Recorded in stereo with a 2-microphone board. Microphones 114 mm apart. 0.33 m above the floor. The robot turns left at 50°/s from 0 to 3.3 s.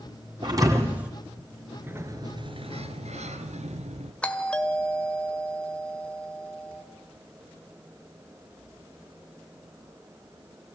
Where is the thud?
140° right, 2.5 m; by 1.1 s 175° right, 2.5 m.